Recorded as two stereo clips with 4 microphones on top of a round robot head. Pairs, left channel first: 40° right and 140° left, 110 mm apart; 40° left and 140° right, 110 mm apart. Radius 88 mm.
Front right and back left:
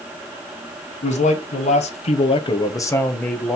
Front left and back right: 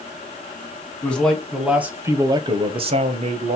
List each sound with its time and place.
1.0 s a man speaking: 35° right, 1.0 m; by 3.6 s 125° right, 1.0 m